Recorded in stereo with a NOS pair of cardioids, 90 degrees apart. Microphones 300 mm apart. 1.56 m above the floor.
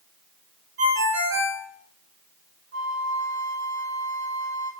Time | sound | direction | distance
0.8 | a ringtone | 50° right | 1.5 m
2.7 | a flute | 40° right | 0.8 m